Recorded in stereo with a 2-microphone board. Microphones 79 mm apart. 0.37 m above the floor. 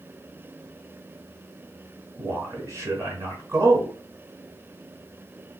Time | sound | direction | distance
2.2 | a man speaking | 40° right (ahead or behind) | 1.2 m